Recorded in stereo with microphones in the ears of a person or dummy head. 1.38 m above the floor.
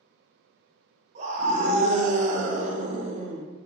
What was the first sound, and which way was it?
A scream, 40° right (ahead or behind).